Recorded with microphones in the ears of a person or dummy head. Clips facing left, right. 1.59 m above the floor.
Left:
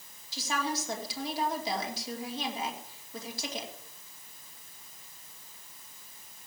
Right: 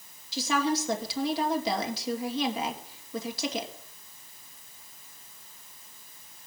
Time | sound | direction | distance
0.3 | a woman speaking | 55° right (ahead or behind) | 2.5 m